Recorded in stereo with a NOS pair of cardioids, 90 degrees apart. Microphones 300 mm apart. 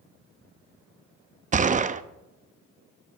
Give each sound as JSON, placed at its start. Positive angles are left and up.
{"t": 1.5, "sound": "a gunshot", "azimuth_deg": -25, "distance_m": 0.7}